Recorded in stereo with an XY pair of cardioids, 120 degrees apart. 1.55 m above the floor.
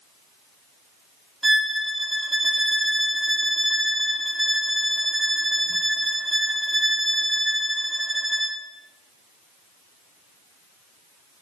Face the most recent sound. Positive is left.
turn(degrees=-15)